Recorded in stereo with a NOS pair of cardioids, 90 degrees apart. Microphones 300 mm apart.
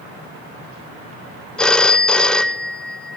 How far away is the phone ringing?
About 0.5 m.